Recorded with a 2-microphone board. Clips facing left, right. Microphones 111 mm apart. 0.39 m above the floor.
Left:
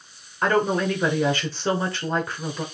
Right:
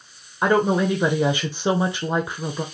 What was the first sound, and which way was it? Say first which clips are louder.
A woman speaking: right 2 dB; 15° right (ahead or behind).